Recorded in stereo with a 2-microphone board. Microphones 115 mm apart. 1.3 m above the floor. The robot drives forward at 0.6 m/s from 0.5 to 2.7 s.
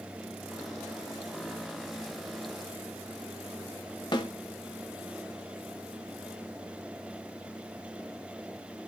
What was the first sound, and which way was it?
A snare drum, 40° left (ahead or behind).